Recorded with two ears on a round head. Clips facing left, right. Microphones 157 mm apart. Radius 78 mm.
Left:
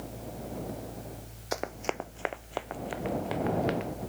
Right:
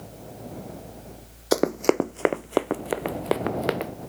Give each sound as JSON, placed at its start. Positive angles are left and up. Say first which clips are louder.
{"t": 1.5, "sound": "running footsteps", "louder": "right 13 dB", "side_deg": -65}